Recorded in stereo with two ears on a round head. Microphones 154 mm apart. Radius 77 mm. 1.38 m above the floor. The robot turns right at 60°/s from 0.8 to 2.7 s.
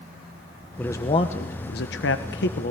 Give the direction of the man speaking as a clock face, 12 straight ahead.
12 o'clock.